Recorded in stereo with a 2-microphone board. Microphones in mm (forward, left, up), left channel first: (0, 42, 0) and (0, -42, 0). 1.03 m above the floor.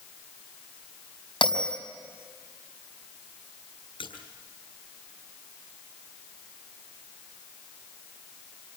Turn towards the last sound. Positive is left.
turn(degrees=75)  # may be behind; listen again after turning